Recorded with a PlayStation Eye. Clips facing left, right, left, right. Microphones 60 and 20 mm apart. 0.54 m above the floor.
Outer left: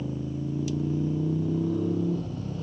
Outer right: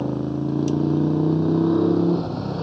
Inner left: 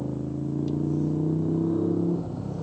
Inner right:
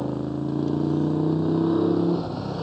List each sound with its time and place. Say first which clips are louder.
0.0 s a motorcycle: outer right 8 dB, inner right 4 dB; 90° right